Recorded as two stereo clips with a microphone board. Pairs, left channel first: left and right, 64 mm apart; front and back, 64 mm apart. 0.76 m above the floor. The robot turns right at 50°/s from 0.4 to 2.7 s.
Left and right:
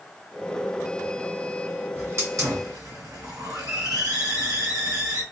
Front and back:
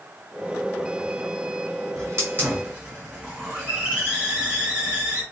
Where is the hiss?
150° right, 1.8 m; by 5.2 s 110° right, 1.8 m.